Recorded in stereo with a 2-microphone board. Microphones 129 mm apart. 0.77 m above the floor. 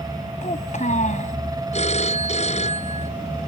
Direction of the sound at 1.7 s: 60° left (ahead or behind).